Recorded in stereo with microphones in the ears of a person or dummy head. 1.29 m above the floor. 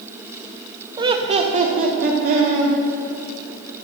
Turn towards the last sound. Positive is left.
turn(degrees=-50)  # may be behind; listen again after turning